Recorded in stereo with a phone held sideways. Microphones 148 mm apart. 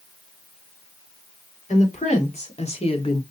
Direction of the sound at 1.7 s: 50° left (ahead or behind).